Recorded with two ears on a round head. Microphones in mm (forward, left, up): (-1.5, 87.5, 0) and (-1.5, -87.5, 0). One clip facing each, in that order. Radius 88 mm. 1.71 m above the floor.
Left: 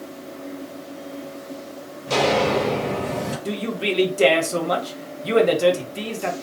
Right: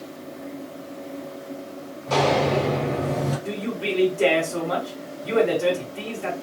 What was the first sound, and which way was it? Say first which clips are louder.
Footsteps: left 1 dB; 45° left (ahead or behind).